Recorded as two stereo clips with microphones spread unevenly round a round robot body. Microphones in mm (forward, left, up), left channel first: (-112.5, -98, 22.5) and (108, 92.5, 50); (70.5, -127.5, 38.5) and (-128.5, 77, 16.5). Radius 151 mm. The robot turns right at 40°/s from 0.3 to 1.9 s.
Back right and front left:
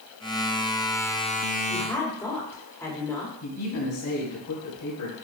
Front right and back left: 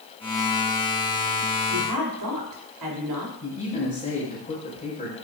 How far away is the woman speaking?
About 3 m.